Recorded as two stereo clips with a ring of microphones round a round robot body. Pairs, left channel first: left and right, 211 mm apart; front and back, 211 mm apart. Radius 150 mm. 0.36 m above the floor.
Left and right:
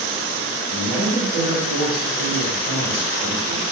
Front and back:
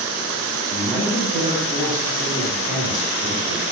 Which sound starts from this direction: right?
A man speaking, at 0.7 s.